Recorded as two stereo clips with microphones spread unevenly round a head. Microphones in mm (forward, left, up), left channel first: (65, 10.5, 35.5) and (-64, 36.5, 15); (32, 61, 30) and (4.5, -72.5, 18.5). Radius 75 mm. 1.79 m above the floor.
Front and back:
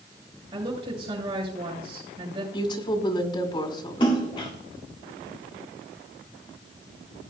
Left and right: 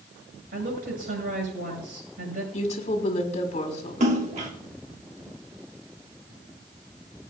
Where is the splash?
65° right, 2 m.